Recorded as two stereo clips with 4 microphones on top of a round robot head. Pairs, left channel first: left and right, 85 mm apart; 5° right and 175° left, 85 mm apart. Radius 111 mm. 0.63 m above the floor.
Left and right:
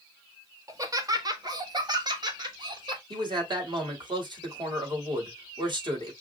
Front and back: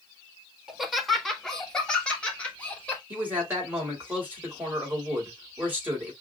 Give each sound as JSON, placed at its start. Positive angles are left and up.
{"t": 0.7, "sound": "laughter", "azimuth_deg": -105, "distance_m": 1.4}
{"t": 3.1, "sound": "a man speaking", "azimuth_deg": -115, "distance_m": 3.0}